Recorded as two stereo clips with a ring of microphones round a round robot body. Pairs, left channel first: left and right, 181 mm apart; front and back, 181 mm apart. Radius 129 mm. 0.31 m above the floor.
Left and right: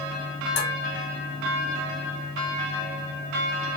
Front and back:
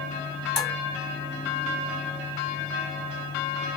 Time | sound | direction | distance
0.6 | dishes clattering | 90° left | 1.9 m